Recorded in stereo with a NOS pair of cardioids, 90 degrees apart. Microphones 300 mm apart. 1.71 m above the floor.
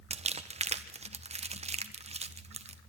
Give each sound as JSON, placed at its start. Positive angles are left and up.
{"t": 0.1, "sound": "crumpling", "azimuth_deg": -20, "distance_m": 1.4}